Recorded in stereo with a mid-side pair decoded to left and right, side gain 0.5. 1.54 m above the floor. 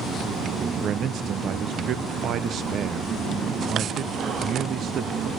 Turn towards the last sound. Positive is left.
turn(degrees=-55)